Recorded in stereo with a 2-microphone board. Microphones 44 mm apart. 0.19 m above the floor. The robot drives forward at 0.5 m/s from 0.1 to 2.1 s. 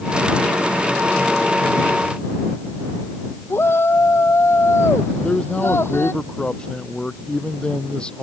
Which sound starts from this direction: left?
A shout, at 3.5 s.